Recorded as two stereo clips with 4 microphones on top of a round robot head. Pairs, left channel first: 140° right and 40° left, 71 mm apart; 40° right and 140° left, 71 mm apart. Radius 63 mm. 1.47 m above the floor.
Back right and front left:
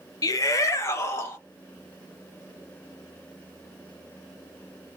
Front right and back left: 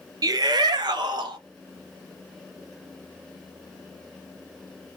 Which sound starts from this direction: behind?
A shout, at 0.2 s.